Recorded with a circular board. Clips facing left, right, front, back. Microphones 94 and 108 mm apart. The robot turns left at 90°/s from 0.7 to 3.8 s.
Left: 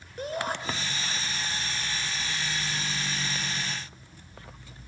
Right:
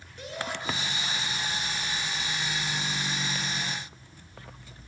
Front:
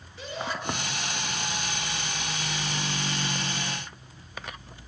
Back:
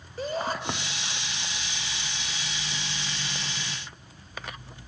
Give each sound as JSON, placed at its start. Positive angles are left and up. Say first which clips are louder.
{"t": 0.2, "sound": "a shout", "louder": "left 5 dB, back 4 dB", "azimuth_deg": 135, "distance_m": 5.5}